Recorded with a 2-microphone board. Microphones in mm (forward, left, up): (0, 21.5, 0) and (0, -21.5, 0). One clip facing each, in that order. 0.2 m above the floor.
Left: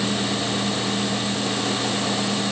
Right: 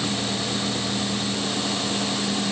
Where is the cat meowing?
No cat meowing in this recording.